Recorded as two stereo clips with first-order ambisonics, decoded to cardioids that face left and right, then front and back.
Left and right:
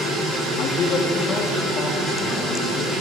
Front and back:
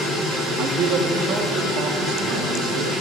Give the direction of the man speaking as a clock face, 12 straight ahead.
8 o'clock.